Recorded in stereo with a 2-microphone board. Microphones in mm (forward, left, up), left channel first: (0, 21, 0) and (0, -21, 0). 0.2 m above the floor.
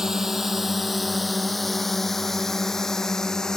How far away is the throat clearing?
No throat clearing in this recording.